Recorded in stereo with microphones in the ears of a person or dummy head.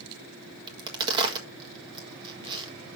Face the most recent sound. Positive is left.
turn(degrees=-25)  # may be behind; listen again after turning